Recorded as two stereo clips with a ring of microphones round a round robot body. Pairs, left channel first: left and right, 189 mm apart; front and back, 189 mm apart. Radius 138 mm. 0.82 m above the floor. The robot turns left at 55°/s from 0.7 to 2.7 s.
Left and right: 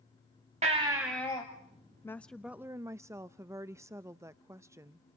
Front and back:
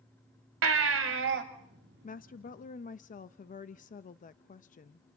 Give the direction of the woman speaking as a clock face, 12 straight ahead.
11 o'clock.